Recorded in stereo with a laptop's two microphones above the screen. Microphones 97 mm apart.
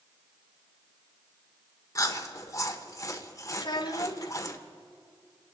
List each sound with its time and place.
1.9 s chewing: 35° left (ahead or behind), 1.3 m
3.6 s a child speaking: 50° left (ahead or behind), 0.9 m